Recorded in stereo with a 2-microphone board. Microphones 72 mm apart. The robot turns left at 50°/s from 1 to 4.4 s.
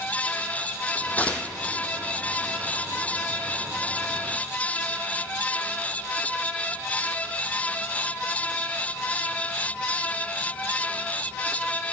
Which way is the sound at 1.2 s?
25° left (ahead or behind).